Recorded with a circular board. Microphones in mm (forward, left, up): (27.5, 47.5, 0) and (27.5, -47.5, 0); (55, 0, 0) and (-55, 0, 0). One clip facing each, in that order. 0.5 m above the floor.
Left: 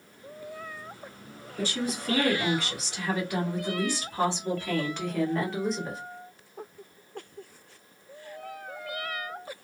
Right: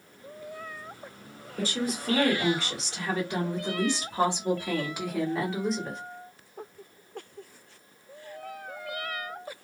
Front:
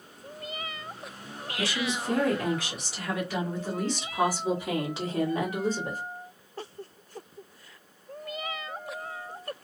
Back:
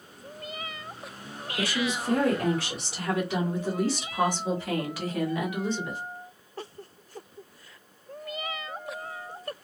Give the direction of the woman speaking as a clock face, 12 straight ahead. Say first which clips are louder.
Right 1 dB, back 2 dB; 5 o'clock.